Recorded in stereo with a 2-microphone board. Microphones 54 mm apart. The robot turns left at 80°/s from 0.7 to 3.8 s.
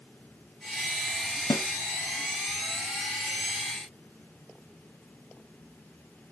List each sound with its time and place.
1.5 s a snare drum: 85° left, 0.9 m; by 1.6 s 75° left (ahead or behind), 0.9 m